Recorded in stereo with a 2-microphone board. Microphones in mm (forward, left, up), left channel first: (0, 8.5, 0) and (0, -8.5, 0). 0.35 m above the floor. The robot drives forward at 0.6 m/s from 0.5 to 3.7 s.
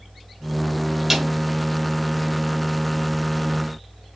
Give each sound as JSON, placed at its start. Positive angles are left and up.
{"t": 1.1, "sound": "a snare drum", "side_deg": -15, "distance_m": 1.7}